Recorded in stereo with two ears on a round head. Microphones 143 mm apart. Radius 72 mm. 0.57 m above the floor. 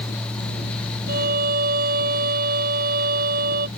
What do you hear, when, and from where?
1.1 s a violin: 55° right (ahead or behind)